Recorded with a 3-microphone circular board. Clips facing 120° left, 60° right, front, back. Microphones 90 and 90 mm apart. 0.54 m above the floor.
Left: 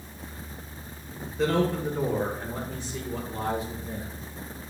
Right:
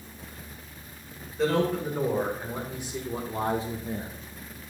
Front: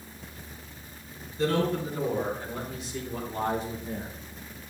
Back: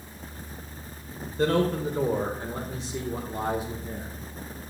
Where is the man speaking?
150° right, 1.8 m; by 4.2 s 80° right, 1.0 m.